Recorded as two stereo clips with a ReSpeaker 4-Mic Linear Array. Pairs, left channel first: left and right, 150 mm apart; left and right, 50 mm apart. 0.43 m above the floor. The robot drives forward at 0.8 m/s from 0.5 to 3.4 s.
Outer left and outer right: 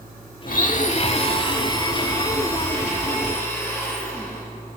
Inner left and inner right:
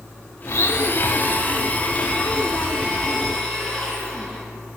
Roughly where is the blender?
Left.